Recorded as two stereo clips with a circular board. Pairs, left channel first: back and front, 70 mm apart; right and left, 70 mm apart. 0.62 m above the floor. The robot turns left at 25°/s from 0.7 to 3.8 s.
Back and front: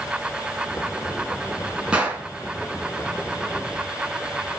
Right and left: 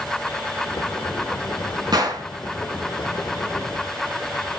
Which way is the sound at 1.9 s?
75° left.